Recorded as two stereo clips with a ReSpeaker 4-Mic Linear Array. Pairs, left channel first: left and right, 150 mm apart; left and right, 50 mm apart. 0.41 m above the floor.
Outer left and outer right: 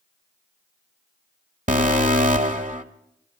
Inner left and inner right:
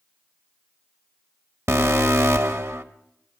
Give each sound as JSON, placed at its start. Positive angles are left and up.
{"t": 1.7, "sound": "an alarm", "side_deg": -60, "distance_m": 1.3}